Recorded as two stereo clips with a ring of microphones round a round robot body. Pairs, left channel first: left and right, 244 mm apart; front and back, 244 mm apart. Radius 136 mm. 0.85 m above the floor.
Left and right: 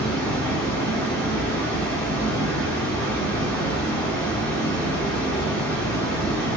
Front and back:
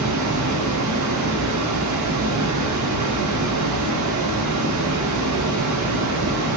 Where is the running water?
175° left, 0.8 m.